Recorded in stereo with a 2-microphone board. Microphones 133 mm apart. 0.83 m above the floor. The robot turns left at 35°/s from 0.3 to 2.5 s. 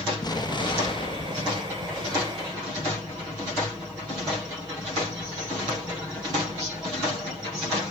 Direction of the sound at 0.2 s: 125° left.